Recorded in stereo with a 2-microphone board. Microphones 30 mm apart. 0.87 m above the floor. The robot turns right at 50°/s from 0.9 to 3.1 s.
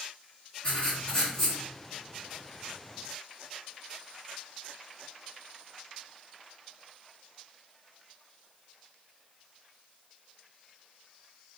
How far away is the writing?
About 1.4 m.